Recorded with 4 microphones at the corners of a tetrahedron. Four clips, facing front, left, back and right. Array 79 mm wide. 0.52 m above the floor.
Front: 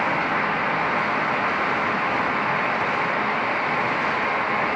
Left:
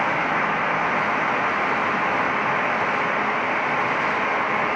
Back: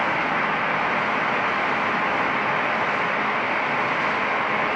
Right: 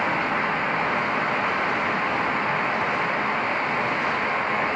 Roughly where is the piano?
No piano in this recording.